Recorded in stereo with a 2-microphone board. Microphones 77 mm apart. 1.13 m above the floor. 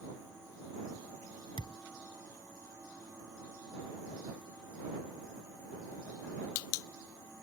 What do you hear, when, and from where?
1.6 s a thud: 80° left